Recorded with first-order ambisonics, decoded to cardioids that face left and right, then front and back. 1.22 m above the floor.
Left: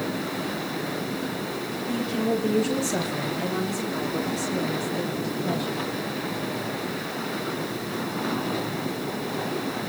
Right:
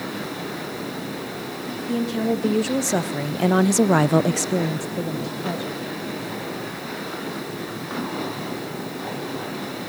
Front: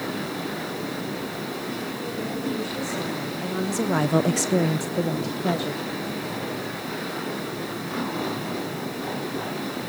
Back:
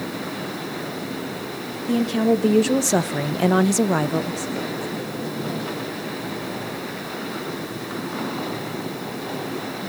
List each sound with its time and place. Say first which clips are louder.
1.9 s a woman speaking: right 2 dB, back 9 dB; 165° right, 2 m; by 5.8 s 10° right, 1.9 m